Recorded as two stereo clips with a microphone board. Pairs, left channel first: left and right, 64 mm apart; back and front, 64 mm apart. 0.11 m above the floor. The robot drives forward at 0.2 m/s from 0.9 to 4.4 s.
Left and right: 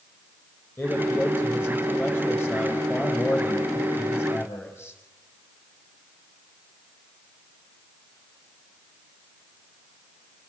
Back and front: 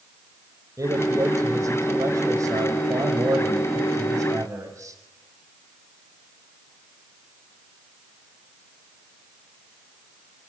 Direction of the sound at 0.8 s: 35° left.